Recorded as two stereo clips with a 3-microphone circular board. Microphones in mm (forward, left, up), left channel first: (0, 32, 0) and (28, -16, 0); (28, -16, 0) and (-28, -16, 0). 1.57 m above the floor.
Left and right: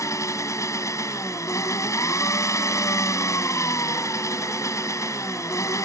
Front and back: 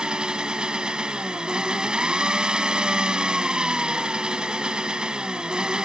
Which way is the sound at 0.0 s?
105° left.